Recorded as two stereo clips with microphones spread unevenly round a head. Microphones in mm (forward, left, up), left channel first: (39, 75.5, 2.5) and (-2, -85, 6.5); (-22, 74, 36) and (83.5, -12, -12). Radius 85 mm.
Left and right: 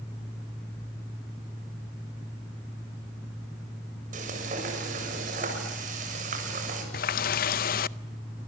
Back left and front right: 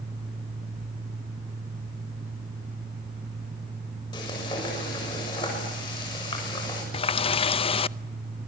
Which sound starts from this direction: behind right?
Frying, at 4.1 s.